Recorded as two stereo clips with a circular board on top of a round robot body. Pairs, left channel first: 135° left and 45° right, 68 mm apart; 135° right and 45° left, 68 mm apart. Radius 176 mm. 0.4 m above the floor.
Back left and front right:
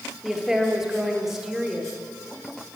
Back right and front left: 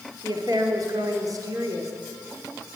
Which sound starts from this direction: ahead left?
A woman speaking, at 0.2 s.